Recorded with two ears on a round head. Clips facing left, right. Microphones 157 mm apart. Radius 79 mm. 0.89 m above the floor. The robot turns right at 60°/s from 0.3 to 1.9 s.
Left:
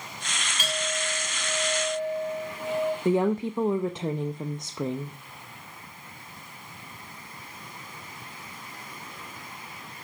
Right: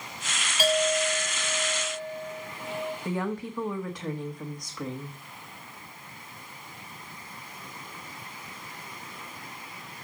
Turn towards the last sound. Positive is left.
turn(degrees=20)  # may be behind; listen again after turning